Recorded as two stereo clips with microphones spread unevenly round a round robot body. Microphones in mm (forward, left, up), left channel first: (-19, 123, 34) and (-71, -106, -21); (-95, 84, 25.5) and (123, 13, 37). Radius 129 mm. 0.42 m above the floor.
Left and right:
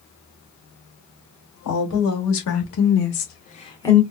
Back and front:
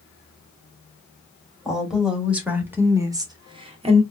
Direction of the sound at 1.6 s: 70° left.